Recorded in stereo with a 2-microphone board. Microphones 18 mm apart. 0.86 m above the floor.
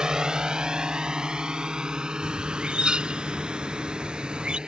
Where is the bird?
50° right (ahead or behind).